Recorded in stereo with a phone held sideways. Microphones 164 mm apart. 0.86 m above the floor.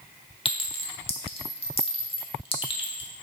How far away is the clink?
About 1.2 m.